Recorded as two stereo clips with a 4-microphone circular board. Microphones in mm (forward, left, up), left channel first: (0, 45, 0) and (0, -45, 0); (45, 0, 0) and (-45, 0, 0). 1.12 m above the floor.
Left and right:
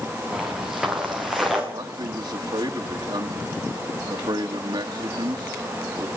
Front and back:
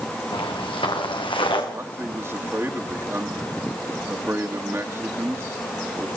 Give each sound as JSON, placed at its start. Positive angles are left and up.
{"t": 0.3, "sound": "footsteps", "azimuth_deg": -5, "distance_m": 6.5}
{"t": 1.7, "sound": "a man speaking", "azimuth_deg": -120, "distance_m": 2.5}